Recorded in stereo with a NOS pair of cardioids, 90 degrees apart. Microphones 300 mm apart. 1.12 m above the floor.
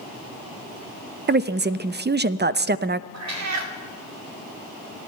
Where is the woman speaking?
35° right, 0.6 m.